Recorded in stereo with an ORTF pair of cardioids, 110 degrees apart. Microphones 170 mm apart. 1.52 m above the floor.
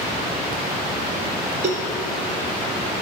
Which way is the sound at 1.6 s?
45° right.